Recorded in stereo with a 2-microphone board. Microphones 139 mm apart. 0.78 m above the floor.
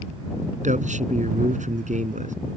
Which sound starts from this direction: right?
A man speaking, at 0.6 s.